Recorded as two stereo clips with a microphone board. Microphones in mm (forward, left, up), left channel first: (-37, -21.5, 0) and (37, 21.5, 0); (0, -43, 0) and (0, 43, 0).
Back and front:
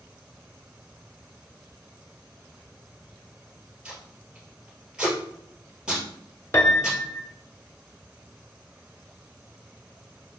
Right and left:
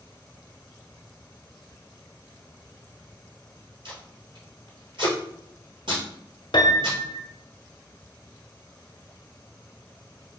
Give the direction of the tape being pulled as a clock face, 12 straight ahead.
8 o'clock.